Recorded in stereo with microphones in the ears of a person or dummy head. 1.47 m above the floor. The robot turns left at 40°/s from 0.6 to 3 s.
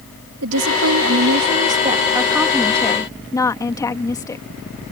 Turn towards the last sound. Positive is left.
turn(degrees=165)